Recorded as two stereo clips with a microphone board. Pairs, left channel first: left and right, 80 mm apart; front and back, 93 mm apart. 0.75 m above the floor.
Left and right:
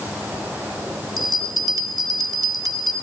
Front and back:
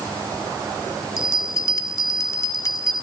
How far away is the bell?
About 2 m.